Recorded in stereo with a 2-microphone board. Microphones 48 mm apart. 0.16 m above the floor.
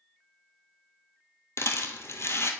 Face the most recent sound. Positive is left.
turn(degrees=65)  # may be behind; listen again after turning